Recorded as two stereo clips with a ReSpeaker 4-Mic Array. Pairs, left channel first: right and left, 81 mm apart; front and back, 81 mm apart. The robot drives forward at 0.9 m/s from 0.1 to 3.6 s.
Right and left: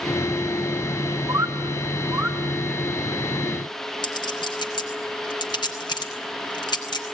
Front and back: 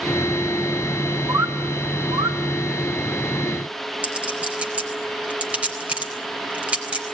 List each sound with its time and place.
1.3 s a bird: 130° left, 1.0 m; by 2.4 s 155° left, 1.8 m
4.0 s a clink: 105° right, 4 m